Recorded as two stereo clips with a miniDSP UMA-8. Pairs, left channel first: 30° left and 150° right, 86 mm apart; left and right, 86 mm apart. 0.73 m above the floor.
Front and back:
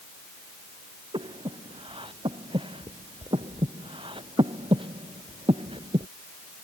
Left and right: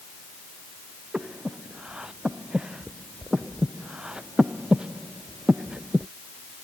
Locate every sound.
1.1 s breathing: 170° right